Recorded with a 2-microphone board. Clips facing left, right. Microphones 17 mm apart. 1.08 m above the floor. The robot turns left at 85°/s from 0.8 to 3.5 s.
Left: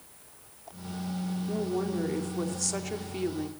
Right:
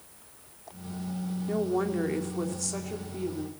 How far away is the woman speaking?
About 2.5 m.